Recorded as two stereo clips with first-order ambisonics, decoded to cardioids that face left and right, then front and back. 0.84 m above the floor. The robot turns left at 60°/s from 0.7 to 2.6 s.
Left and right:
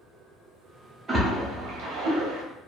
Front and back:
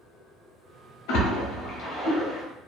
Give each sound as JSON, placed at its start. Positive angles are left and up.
{"t": 1.1, "sound": "a splash", "azimuth_deg": -15, "distance_m": 0.8}